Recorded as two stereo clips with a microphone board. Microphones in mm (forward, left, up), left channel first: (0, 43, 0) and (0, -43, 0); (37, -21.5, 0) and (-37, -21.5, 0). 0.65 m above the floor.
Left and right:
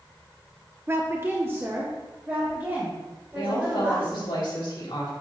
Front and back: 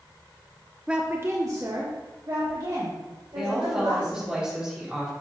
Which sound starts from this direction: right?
A woman speaking, at 0.9 s.